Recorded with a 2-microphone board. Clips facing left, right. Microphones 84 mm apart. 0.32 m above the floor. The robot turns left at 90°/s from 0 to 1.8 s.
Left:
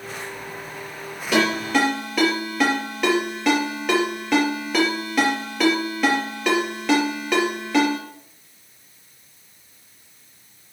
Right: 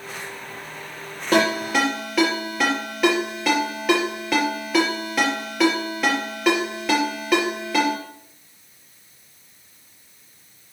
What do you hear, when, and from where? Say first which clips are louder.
1.3 s a ringtone: right 1 dB; 45° right (ahead or behind), 4.5 m; by 8.0 s centre (ahead or behind), 4.5 m